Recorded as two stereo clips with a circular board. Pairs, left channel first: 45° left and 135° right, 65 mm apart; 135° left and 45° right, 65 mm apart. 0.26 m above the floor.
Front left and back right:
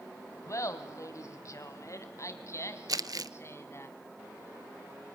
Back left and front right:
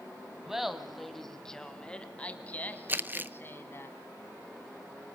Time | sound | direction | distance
0.5 | laughter | 35° left | 2 m
2.9 | crumpling | 105° right | 0.7 m